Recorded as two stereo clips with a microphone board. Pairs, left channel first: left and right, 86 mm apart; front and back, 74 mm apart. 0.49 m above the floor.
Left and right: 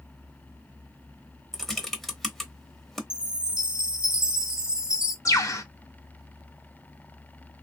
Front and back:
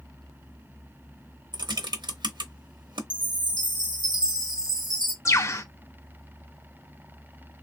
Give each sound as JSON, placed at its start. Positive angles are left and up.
{"t": 1.5, "sound": "typing on a keyboard", "azimuth_deg": 175, "distance_m": 0.8}
{"t": 3.1, "sound": "a chime", "azimuth_deg": -170, "distance_m": 1.0}
{"t": 5.2, "sound": "a bird", "azimuth_deg": 45, "distance_m": 0.6}